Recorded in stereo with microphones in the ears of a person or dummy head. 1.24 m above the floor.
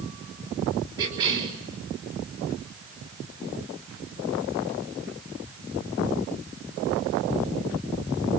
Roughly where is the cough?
Centre.